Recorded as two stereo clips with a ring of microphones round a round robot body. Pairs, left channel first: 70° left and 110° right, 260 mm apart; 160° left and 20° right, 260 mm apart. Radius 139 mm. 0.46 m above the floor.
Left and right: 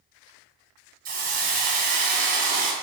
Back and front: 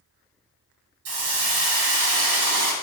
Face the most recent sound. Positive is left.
turn(degrees=-55)